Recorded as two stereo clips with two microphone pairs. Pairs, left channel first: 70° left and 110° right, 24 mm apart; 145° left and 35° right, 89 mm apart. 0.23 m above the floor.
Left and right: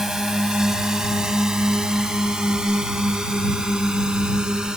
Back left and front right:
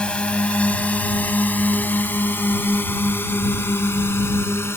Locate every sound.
0.0 s a drone: 150° right; by 4.8 s 160° right